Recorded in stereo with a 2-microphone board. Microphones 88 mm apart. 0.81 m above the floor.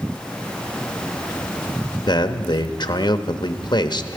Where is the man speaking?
55° left (ahead or behind), 0.9 m.